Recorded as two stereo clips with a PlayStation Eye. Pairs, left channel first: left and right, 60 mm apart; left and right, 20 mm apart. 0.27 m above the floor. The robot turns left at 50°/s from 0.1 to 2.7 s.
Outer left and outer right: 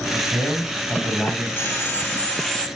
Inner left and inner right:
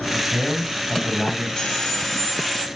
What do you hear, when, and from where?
0.1 s a man speaking: 160° right, 1.5 m; by 1.5 s 135° left, 1.5 m
1.6 s sawing: 70° left, 1.5 m; by 2.6 s 15° left, 1.5 m